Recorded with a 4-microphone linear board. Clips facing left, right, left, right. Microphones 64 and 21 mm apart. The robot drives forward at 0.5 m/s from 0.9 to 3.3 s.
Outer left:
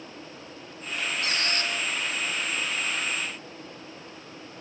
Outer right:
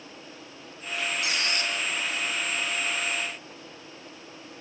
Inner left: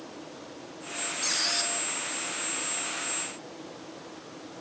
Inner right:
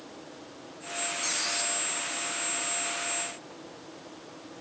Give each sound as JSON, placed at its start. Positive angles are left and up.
{"t": 1.2, "sound": "a squeak", "side_deg": 40, "distance_m": 5.5}